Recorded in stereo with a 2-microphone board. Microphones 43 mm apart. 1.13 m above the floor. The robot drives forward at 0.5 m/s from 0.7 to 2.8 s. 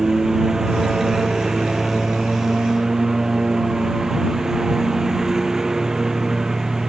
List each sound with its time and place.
0.0 s a lawn mower: 15° right (ahead or behind); by 6.9 s 10° right (ahead or behind)